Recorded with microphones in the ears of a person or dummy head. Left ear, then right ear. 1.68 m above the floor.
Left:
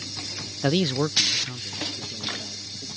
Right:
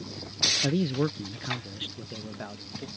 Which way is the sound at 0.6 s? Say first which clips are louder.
Left 4 dB; 50° left (ahead or behind).